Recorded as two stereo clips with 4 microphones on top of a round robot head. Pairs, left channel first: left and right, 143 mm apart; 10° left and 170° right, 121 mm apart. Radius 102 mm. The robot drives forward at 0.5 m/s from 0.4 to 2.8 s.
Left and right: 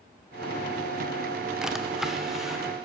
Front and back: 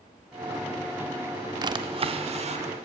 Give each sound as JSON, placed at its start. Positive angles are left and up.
{"t": 1.6, "sound": "a drawer", "azimuth_deg": -175, "distance_m": 0.5}